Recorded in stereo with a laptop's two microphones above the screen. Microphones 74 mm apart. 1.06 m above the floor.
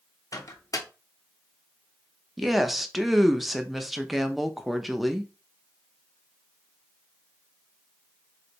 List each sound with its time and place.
0.3 s a microwave: 55° left (ahead or behind), 0.6 m
2.4 s a woman speaking: centre (ahead or behind), 0.7 m